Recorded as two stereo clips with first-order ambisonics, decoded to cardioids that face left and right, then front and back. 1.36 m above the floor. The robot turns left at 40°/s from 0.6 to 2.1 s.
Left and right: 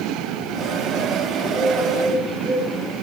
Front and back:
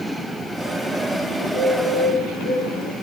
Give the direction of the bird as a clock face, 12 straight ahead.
11 o'clock.